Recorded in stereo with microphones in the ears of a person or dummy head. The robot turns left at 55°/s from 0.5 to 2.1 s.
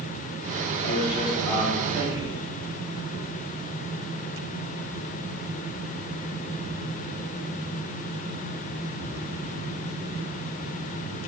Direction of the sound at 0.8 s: 50° left.